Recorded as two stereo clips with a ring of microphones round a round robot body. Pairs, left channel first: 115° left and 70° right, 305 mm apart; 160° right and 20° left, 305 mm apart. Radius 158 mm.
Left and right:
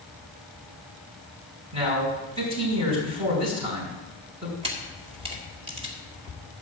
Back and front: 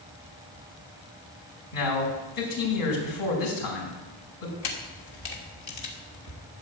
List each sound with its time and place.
1.7 s a man speaking: 140° right, 5 m
4.6 s a camera shutter: 140° right, 2 m